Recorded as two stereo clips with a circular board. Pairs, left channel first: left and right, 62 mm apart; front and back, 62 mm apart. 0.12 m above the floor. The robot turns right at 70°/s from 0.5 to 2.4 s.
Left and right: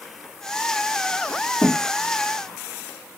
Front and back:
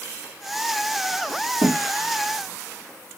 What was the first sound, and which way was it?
A thud, 155° left.